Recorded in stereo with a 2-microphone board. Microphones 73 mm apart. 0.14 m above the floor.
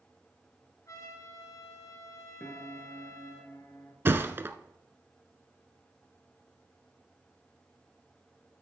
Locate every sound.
0.9 s a trumpet: 45° left (ahead or behind), 2 m
2.4 s a piano: 30° left (ahead or behind), 1.3 m
4.0 s a thud: 30° right (ahead or behind), 0.7 m